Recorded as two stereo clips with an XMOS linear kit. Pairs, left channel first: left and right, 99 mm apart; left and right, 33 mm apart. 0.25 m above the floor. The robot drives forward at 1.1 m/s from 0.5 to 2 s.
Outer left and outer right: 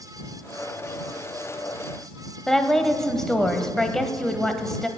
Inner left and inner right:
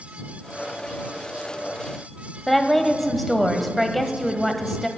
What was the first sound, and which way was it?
A woman speaking, 5° left (ahead or behind).